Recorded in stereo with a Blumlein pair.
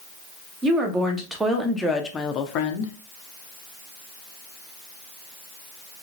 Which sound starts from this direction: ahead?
A woman speaking, at 0.6 s.